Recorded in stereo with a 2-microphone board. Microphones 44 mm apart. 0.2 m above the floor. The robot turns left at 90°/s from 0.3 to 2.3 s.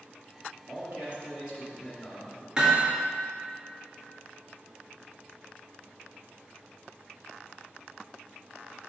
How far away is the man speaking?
About 2 m.